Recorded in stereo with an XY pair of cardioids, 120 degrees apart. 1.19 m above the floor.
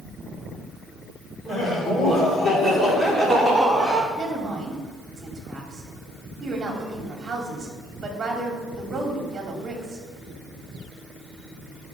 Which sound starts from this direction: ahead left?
Laughter, at 1.4 s.